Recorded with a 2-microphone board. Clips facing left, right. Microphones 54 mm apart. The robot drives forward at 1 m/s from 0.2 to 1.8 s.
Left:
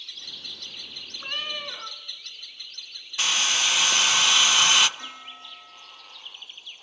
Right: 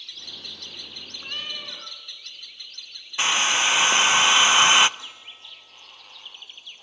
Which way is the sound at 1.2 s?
20° left (ahead or behind).